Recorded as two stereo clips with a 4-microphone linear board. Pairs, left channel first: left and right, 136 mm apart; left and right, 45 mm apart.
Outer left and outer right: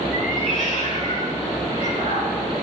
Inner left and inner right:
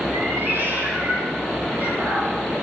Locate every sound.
0.1 s a cat meowing: 65° right (ahead or behind), 5 m; by 2.3 s 55° right (ahead or behind), 6 m